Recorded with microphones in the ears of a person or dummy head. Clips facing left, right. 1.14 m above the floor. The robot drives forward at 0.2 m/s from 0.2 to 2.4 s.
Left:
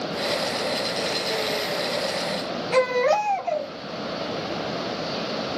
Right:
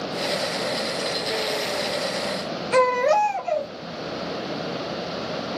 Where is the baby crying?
20° right (ahead or behind), 1.0 m.